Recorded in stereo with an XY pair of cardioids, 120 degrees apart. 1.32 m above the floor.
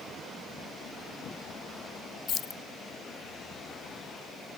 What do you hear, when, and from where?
2.3 s keys jangling: 55° left, 0.6 m